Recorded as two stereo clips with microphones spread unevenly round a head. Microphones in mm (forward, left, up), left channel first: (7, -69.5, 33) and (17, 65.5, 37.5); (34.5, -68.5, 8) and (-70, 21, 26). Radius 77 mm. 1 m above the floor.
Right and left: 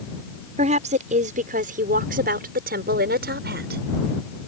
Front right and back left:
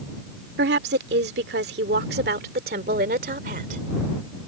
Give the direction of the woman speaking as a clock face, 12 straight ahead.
8 o'clock.